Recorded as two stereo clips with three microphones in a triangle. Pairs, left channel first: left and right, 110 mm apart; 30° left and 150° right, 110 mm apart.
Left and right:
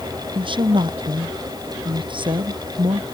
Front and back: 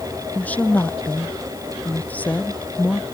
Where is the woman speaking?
45° right.